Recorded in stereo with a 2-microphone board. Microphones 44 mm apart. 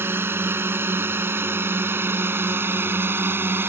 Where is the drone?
65° right (ahead or behind); by 3.7 s 60° right (ahead or behind).